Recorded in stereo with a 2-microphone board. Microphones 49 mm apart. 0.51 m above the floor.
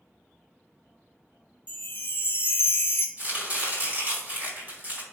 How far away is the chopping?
About 3 m.